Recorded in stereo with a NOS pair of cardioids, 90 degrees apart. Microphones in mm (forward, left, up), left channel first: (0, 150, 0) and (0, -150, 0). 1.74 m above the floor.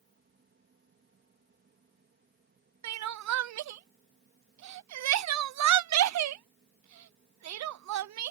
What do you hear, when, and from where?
0.0 s a fan: 40° right
2.8 s crying: 65° right